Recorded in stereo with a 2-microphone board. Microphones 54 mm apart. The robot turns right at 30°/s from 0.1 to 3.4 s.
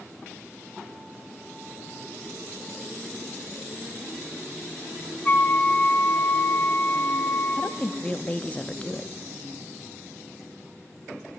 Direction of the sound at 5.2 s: 30° left (ahead or behind).